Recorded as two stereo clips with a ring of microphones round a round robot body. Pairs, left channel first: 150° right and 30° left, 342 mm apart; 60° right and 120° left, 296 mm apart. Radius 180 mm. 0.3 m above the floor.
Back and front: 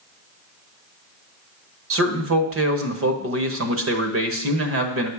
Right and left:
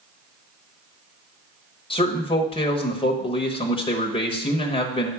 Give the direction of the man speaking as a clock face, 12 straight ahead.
12 o'clock.